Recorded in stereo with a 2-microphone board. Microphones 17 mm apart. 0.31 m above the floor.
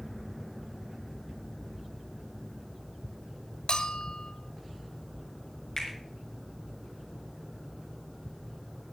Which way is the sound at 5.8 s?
25° left (ahead or behind).